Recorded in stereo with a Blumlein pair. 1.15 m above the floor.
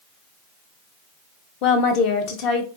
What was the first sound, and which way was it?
A woman speaking, 40° left.